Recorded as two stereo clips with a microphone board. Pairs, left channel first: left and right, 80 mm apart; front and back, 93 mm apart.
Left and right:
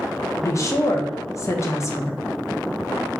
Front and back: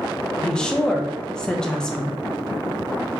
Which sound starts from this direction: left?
A woman speaking, at 0.4 s.